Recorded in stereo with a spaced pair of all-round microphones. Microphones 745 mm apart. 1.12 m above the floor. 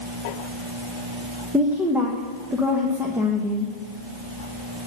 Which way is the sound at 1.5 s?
5° right (ahead or behind).